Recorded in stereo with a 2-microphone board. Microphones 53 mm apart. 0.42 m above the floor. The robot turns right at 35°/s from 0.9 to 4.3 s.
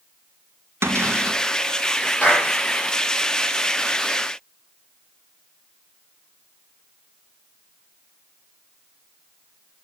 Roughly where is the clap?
Left.